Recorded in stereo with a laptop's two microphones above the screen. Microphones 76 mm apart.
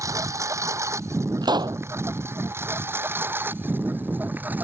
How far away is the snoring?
I don't hear snoring.